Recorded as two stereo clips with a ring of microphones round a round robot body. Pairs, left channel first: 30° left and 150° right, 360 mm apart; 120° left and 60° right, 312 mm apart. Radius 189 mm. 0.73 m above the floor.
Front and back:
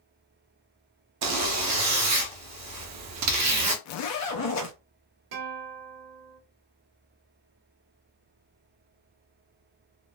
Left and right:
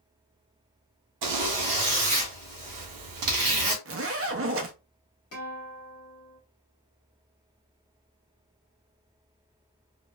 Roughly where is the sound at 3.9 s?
Ahead.